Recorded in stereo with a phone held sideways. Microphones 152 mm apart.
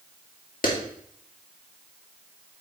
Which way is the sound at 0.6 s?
65° left (ahead or behind).